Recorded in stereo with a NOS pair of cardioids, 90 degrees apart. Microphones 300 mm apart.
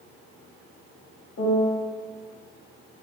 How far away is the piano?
About 0.9 m.